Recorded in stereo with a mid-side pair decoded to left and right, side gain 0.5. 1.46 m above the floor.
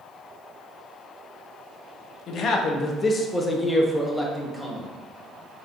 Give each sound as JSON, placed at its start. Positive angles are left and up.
{"t": 2.3, "sound": "a man speaking", "azimuth_deg": 65, "distance_m": 0.9}